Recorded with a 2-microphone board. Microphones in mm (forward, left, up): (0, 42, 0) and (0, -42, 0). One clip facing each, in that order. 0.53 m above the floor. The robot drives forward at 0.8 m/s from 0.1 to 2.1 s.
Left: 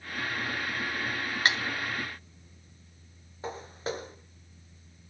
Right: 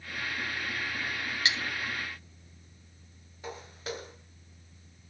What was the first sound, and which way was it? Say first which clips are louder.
Cutlery clinking: left 5 dB; 50° left (ahead or behind).